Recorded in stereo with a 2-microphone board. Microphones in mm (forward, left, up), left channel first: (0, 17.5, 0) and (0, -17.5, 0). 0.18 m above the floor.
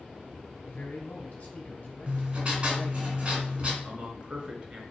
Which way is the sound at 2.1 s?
40° right (ahead or behind).